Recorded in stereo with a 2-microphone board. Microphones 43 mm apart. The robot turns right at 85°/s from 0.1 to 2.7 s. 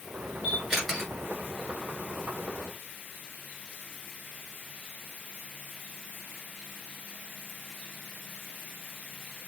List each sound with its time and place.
0.4 s a camera shutter: 20° right (ahead or behind), 1.9 m; by 1.1 s 10° left (ahead or behind), 1.9 m